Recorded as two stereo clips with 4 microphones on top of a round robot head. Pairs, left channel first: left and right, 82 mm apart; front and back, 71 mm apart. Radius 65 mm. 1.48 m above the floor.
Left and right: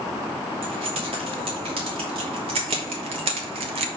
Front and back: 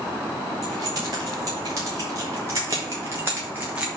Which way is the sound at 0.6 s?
125° right.